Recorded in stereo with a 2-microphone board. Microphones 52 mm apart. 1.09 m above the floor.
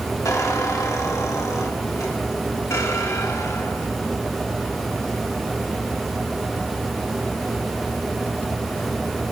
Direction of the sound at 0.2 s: 85° left.